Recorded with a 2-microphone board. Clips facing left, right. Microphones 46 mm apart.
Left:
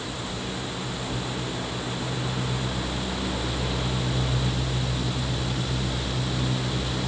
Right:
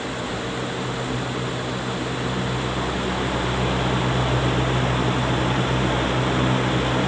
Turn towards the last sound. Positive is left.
No sound to turn to.